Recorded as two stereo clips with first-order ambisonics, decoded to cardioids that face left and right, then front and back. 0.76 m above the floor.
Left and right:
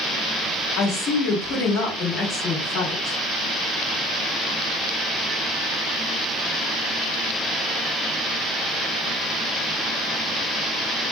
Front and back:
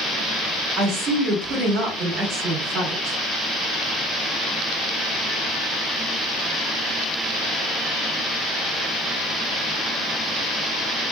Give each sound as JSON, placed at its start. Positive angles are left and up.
{"t": 0.8, "sound": "a woman speaking", "azimuth_deg": 135, "distance_m": 1.2}